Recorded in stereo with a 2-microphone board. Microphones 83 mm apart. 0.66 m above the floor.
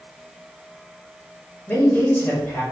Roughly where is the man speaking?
Left.